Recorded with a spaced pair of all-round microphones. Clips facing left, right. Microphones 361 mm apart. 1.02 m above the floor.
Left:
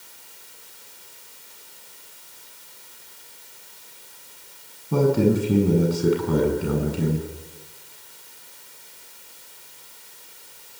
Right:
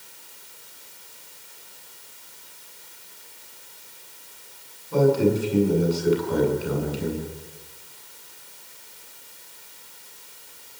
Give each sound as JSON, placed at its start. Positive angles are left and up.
{"t": 4.9, "sound": "a man speaking", "side_deg": 65, "distance_m": 8.5}